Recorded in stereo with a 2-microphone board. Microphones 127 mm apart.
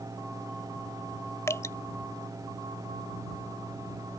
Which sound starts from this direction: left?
Dripping, at 1.5 s.